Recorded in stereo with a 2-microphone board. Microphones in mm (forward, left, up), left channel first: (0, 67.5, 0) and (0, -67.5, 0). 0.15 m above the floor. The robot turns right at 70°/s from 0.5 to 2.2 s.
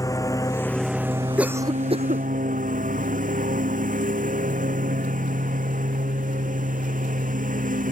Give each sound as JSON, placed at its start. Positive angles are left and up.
{"t": 0.0, "sound": "a lawn mower", "azimuth_deg": 155}
{"t": 1.4, "sound": "a cough", "side_deg": -5}